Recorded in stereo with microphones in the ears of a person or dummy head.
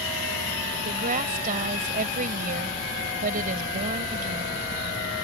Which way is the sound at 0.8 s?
45° right (ahead or behind).